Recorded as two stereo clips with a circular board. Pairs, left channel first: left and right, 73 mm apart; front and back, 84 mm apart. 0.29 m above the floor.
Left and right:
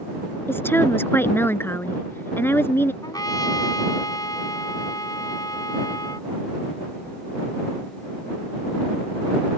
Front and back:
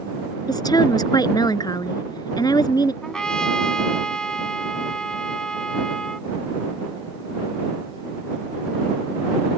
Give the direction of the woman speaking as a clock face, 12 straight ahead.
11 o'clock.